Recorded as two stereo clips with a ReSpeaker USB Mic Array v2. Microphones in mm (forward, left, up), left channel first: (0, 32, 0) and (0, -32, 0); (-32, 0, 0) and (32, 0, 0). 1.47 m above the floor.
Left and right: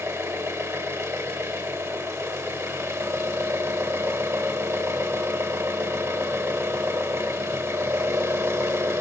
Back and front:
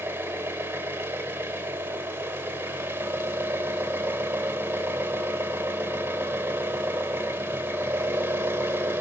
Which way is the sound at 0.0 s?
60° right.